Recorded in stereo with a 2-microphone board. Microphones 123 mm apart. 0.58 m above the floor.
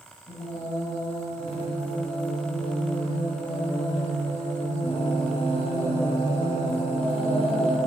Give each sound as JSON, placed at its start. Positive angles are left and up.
{"t": 0.3, "sound": "singing", "side_deg": 55, "distance_m": 1.5}